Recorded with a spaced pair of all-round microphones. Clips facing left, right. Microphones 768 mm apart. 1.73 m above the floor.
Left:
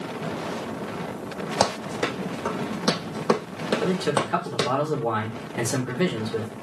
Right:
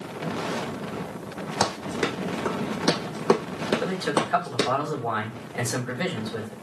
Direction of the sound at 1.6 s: 15° left (ahead or behind).